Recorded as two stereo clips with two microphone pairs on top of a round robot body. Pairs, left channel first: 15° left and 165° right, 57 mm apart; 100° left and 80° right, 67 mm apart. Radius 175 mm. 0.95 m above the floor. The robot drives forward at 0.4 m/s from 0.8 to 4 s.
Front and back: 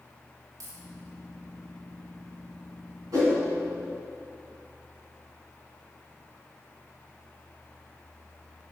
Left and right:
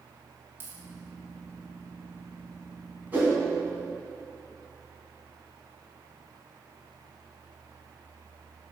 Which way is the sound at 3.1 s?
150° right.